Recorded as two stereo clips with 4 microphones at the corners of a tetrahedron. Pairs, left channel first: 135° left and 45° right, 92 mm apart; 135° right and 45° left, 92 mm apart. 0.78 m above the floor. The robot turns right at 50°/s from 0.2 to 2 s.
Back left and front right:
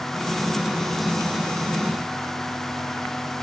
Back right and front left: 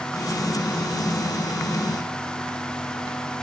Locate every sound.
Only background noise.